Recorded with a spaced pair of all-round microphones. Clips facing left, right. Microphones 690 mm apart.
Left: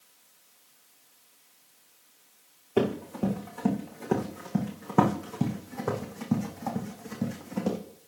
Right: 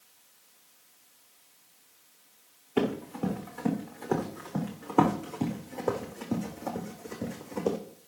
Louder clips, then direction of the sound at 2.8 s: Left 2 dB; 65° left (ahead or behind).